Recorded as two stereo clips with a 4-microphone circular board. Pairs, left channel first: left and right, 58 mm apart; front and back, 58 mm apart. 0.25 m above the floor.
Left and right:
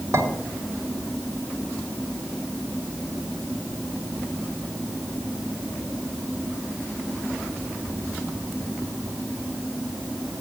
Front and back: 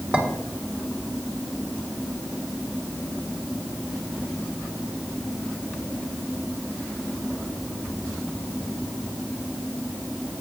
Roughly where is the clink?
Behind right.